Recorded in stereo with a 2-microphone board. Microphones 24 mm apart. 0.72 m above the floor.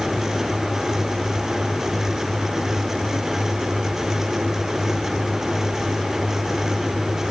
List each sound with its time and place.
Only background noise.